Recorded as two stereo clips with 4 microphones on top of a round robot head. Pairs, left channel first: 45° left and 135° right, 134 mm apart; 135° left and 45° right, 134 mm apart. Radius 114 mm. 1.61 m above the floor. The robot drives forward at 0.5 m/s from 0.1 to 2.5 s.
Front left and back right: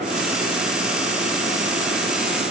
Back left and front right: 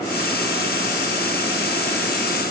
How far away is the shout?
No shout in this recording.